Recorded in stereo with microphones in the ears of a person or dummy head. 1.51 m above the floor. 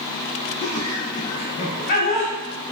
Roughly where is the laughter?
Left.